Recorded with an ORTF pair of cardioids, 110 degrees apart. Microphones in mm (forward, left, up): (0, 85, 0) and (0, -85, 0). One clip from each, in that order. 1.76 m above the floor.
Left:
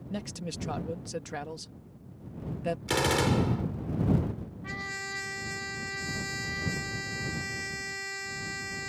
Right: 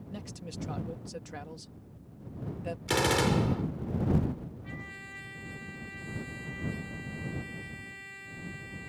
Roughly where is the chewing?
No chewing in this recording.